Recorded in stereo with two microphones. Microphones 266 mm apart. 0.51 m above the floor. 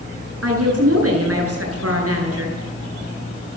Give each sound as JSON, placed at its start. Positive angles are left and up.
{"t": 0.4, "sound": "a woman speaking", "side_deg": -60, "distance_m": 8.5}